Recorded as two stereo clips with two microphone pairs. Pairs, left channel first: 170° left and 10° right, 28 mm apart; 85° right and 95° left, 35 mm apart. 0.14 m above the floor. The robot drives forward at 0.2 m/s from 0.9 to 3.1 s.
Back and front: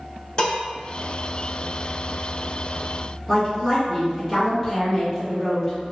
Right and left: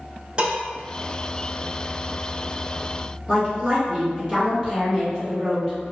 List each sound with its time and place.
0.4 s dishes clattering: 140° left, 1.1 m
3.3 s a woman speaking: 135° right, 1.7 m